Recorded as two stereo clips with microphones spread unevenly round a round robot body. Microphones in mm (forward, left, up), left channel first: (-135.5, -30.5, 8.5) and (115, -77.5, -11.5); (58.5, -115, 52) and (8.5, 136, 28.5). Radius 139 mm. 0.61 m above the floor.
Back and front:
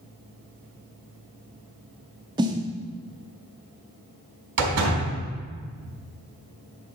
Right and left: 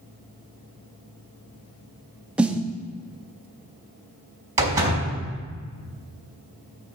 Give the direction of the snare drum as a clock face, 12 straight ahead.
11 o'clock.